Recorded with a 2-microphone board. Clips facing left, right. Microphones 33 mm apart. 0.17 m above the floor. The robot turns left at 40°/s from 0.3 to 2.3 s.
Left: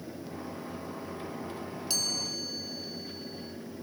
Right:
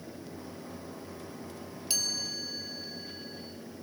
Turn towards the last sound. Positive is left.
turn(degrees=-25)  # may be behind; listen again after turning